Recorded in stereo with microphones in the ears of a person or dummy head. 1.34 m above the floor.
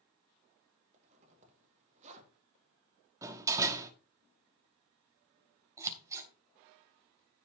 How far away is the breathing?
I don't hear breathing.